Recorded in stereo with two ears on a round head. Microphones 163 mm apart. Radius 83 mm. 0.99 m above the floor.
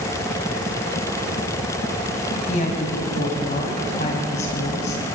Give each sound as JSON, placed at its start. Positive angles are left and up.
{"t": 2.5, "sound": "a woman speaking", "side_deg": 35, "distance_m": 5.5}